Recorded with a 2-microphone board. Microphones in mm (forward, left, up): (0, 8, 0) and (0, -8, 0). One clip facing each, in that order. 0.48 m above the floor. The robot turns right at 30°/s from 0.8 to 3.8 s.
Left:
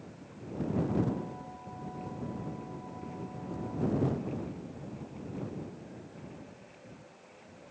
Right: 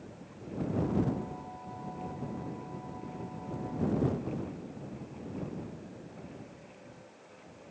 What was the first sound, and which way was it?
Only background noise.